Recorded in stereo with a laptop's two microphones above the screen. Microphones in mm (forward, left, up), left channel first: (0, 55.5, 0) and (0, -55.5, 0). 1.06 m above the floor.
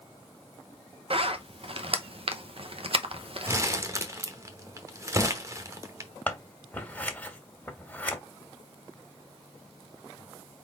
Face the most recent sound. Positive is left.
turn(degrees=15)  # may be behind; listen again after turning